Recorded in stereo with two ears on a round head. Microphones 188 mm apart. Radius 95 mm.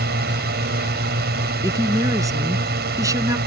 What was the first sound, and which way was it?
A drone, 50° right (ahead or behind).